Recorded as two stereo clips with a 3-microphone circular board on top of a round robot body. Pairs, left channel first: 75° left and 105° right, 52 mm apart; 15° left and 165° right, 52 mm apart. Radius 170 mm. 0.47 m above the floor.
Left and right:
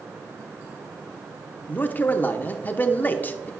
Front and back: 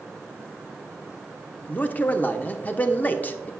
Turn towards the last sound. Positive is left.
turn(degrees=45)